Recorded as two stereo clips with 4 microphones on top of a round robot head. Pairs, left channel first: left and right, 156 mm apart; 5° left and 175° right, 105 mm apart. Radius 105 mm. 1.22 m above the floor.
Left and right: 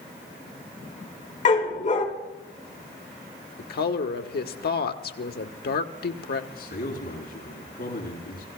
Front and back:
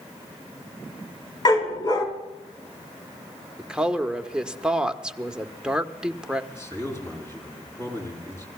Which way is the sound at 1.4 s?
50° left.